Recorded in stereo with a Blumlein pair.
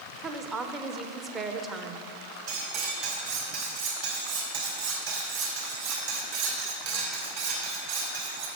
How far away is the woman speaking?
About 0.9 m.